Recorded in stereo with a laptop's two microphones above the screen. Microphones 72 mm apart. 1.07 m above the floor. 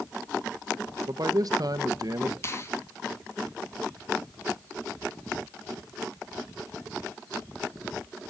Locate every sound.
1.1 s a man speaking: 55° right (ahead or behind), 1.1 m
2.4 s a finger snap: 35° left (ahead or behind), 1.3 m